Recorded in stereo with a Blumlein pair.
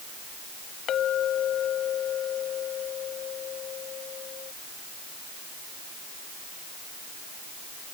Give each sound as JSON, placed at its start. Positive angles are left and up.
{"t": 0.9, "sound": "a clink", "azimuth_deg": 30}